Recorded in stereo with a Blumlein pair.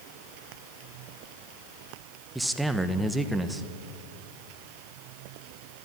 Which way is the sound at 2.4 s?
5° right.